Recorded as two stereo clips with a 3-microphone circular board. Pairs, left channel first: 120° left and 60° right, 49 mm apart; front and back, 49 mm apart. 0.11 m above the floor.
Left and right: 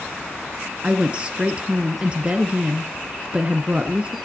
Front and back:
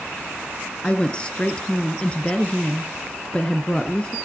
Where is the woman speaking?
35° right, 1.6 m.